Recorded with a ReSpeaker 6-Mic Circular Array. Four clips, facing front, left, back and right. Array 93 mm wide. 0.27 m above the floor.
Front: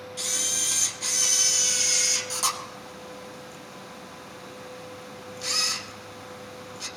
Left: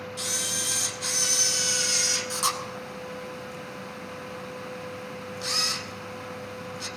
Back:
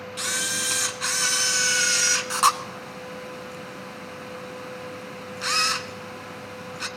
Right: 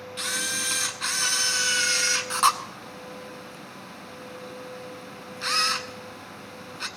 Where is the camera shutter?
145° right, 0.8 m.